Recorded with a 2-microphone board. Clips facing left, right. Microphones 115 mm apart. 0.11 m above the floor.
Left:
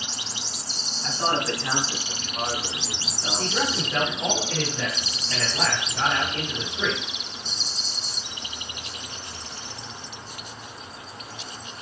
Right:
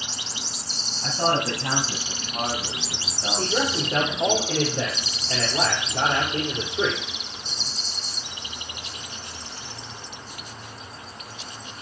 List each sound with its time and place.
1.0 s a man speaking: 50° right (ahead or behind), 2.5 m
3.4 s a man speaking: 45° right (ahead or behind), 4 m